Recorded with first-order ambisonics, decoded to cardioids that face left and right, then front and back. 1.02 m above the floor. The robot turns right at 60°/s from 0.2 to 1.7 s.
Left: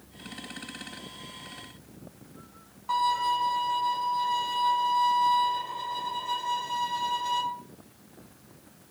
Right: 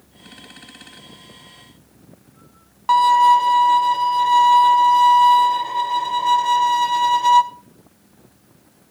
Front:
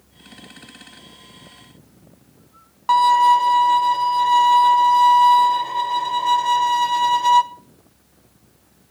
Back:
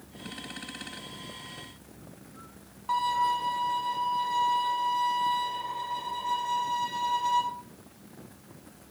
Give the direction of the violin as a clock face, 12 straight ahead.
2 o'clock.